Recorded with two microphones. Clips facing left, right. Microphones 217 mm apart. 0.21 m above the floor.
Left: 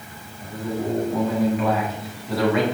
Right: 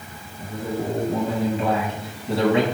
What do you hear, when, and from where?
0.4 s a man speaking: 30° right (ahead or behind), 1.3 m